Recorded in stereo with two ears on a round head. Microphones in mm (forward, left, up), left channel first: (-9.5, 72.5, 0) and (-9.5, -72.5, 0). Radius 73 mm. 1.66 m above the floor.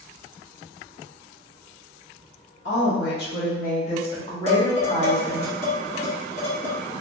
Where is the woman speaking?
75° left (ahead or behind), 1.4 m; by 5.5 s 5° right (ahead or behind), 1.4 m.